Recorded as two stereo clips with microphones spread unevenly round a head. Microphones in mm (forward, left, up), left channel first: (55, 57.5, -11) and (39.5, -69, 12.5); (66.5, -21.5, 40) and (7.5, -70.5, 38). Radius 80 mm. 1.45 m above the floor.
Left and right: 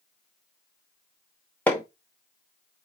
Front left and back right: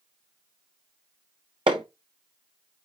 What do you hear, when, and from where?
1.7 s hammering: 170° left, 1.0 m